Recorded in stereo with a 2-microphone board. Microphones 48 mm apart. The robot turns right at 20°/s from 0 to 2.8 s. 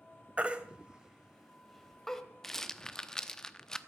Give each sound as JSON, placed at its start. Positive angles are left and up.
{"t": 0.4, "sound": "a baby crying", "side_deg": -30, "distance_m": 1.3}
{"t": 2.4, "sound": "a rattle", "side_deg": 5, "distance_m": 0.8}